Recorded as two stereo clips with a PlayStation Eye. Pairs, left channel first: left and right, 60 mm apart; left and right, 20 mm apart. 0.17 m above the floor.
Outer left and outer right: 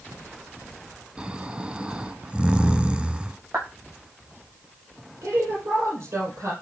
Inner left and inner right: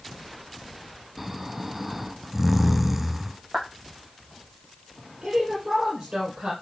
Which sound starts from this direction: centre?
Snoring, at 1.2 s.